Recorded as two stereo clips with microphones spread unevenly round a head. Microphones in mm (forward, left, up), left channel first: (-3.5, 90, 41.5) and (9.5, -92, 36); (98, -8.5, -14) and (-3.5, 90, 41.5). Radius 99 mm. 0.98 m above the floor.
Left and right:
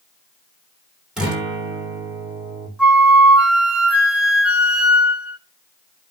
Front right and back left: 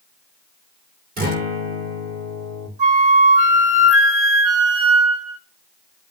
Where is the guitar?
170° right, 2.5 m.